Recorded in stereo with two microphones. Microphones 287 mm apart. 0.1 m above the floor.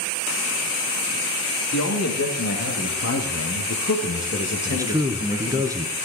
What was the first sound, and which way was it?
A man speaking, 65° left (ahead or behind).